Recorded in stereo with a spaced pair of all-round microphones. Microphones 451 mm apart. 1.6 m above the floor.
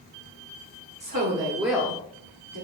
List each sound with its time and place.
1.0 s a woman speaking: 45° right (ahead or behind), 1.0 m; by 2.6 s 55° left (ahead or behind), 1.0 m